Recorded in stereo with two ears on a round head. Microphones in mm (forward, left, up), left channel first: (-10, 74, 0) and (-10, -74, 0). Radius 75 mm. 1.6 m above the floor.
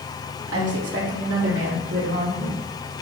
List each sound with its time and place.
0.5 s a woman speaking: 75° right (ahead or behind), 3 m; by 2.6 s 85° right, 5 m